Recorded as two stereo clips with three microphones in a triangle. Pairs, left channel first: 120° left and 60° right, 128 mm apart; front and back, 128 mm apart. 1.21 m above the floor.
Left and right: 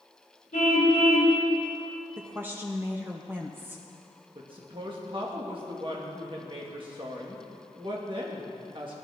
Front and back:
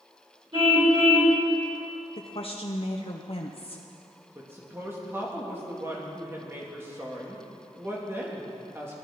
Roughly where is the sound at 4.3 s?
Right.